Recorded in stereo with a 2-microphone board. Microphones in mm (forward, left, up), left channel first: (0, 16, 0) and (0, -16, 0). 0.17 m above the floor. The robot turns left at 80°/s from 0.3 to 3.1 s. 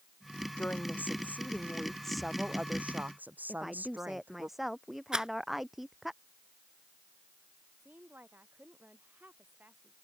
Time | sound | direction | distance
0.6 | a woman speaking | 130° left | ?
3.5 | a woman speaking | 5° right (ahead or behind) | ?
5.1 | a rattle | 30° right (ahead or behind) | ?
7.8 | a woman speaking | 85° right | ?